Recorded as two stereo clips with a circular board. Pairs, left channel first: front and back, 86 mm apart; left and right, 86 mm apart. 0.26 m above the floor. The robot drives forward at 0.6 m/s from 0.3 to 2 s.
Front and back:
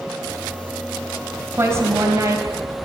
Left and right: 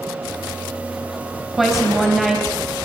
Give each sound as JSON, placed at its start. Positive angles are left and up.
{"t": 1.6, "sound": "a woman speaking", "azimuth_deg": -175, "distance_m": 1.6}